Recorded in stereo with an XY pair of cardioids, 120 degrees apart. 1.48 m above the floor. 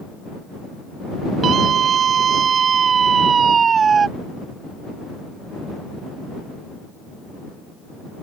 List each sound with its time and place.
1.4 s a scream: 50° right; by 4.1 s 35° right